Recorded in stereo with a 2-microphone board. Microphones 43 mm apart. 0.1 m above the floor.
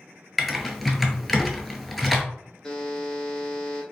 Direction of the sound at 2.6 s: 15° left (ahead or behind).